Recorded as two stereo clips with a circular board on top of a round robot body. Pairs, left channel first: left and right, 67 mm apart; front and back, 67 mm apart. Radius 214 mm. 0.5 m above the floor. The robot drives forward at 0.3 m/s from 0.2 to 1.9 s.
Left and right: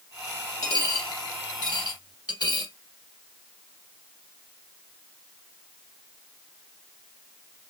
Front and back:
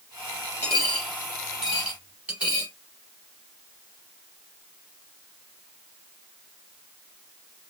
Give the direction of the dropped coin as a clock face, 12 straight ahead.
10 o'clock.